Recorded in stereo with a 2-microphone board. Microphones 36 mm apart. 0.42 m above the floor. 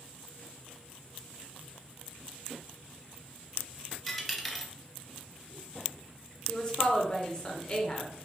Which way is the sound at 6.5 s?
25° left (ahead or behind).